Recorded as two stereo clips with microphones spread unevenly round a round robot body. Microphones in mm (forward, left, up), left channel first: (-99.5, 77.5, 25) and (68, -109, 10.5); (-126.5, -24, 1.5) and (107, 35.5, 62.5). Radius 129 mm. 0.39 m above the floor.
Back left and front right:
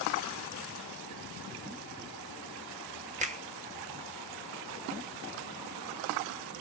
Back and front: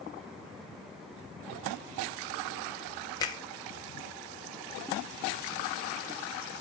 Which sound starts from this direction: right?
A finger snap, at 3.2 s.